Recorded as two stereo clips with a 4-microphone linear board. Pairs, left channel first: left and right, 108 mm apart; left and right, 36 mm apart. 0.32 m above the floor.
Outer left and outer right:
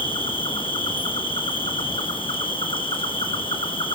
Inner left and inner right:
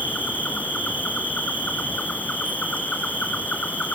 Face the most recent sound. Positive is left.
turn(degrees=55)  # may be behind; listen again after turning